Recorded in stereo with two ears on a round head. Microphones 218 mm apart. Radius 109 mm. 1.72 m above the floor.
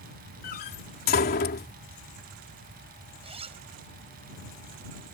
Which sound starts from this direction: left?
A door slam, at 0.4 s.